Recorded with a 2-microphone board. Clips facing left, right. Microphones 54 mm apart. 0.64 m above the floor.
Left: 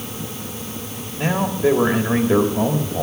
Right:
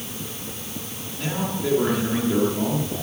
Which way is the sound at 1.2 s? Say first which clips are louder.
Left 7 dB; 35° left (ahead or behind).